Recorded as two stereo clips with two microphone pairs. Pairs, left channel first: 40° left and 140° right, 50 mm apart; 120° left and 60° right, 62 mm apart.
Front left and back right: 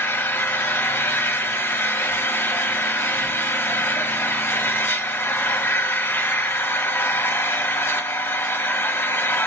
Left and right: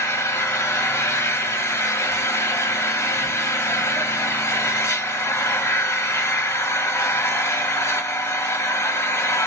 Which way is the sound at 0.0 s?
80° left.